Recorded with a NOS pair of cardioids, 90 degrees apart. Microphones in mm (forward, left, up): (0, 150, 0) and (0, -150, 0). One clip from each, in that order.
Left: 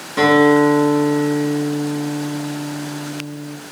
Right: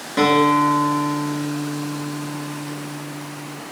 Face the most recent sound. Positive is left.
turn(degrees=-10)